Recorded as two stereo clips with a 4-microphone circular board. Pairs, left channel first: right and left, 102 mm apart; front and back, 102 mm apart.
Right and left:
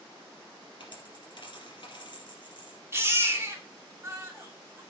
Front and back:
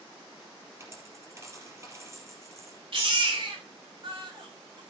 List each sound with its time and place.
0.8 s a dropped coin: 120° right, 3.5 m
2.9 s a baby crying: 155° left, 2.5 m